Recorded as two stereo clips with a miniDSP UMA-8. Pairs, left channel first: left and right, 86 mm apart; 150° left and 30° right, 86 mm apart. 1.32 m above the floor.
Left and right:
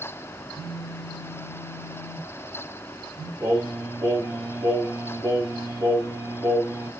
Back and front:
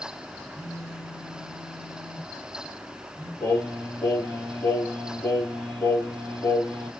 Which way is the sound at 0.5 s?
115° left.